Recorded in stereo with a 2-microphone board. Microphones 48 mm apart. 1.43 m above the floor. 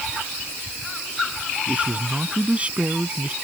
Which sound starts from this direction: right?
A man speaking, at 1.7 s.